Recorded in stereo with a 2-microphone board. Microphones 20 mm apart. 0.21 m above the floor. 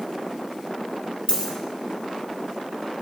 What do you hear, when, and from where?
1.3 s a dropped coin: 45° left (ahead or behind), 1.4 m